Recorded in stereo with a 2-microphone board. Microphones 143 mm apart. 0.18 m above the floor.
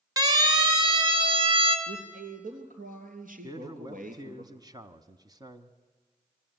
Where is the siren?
30° right (ahead or behind), 3.5 m; by 1.8 s 40° right (ahead or behind), 3 m.